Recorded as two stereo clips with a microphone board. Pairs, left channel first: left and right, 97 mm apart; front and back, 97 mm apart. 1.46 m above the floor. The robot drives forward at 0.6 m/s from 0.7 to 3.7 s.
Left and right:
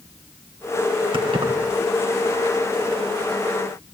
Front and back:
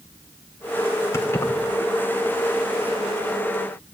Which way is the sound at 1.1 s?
60° right.